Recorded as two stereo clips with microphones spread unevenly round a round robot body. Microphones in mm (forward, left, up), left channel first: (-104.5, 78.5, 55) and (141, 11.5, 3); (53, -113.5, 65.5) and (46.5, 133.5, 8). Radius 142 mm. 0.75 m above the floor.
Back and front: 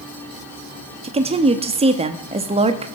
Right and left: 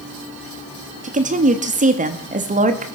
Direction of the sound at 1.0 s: 45° left.